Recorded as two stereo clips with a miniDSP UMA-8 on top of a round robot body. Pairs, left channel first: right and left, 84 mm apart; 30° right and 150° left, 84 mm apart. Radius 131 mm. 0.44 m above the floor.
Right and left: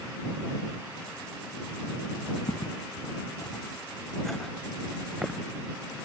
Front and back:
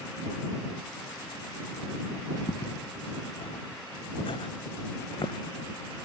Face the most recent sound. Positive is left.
turn(degrees=5)